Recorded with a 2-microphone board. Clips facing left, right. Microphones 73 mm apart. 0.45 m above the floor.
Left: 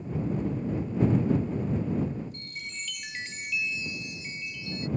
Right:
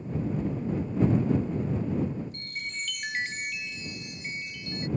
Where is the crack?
No crack in this recording.